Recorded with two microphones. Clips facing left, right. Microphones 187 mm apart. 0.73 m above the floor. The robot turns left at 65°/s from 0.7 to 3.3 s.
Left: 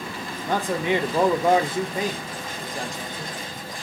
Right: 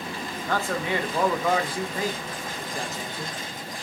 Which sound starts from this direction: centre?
A man speaking, at 0.5 s.